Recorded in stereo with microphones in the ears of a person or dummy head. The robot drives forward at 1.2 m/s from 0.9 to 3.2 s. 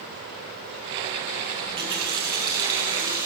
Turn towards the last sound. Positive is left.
turn(degrees=-15)  # may be behind; listen again after turning